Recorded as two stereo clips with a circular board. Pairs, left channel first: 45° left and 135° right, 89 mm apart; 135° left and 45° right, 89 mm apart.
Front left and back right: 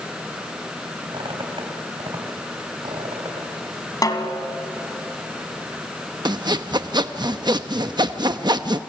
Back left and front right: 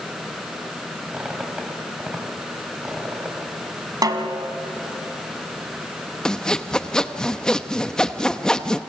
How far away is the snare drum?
About 2 m.